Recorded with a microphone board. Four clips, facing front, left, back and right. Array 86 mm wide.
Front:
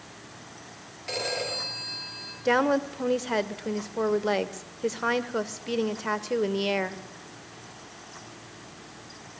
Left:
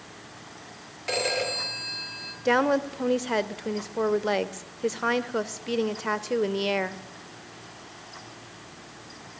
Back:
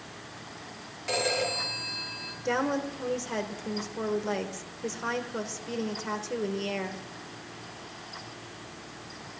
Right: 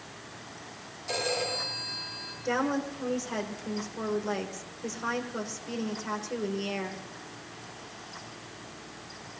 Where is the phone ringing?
95° left, 6 m.